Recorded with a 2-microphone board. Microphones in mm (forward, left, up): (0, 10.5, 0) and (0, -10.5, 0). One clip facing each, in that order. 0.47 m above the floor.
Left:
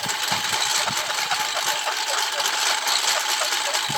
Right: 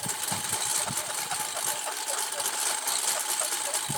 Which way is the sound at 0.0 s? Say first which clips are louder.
Left 9 dB; 40° left (ahead or behind).